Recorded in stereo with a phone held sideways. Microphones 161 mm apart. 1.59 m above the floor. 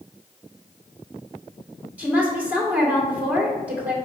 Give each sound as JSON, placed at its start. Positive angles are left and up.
{"t": 2.0, "sound": "a woman speaking", "side_deg": -10, "distance_m": 1.9}